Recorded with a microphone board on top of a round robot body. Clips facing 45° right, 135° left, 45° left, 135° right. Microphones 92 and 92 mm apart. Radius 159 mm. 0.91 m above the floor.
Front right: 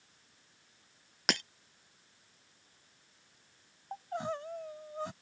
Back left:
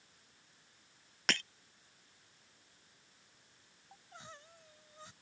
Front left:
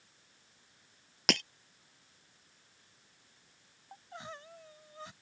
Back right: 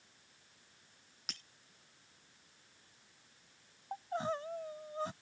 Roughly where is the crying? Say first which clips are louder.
Front right 18 dB, back right 10 dB; right.